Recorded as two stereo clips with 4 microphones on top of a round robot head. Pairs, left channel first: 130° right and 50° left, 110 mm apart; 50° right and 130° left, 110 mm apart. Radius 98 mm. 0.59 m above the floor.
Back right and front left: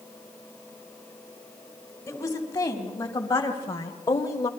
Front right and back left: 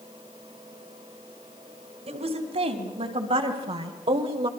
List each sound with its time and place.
2.1 s a woman speaking: 160° left, 4 m; by 4.5 s 170° left, 1.9 m